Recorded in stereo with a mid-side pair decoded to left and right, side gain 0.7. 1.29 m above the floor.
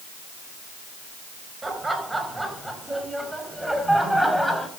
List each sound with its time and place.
1.6 s laughter: 15° right, 5.5 m; by 4.7 s straight ahead, 6.5 m